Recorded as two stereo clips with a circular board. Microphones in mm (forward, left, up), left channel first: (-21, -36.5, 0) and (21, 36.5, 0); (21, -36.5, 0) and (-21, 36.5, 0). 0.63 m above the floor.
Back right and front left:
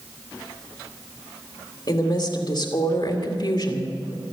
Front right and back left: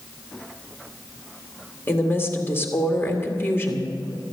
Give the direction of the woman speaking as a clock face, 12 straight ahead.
4 o'clock.